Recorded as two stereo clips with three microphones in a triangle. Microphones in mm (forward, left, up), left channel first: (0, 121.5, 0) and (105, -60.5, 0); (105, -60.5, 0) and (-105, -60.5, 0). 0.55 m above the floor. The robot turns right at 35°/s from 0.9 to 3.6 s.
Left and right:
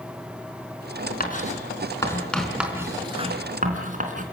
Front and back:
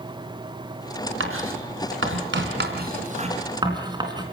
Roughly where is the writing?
Behind.